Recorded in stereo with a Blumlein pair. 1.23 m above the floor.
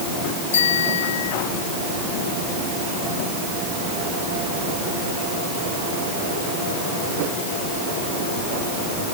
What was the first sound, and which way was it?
A bicycle bell, 60° left.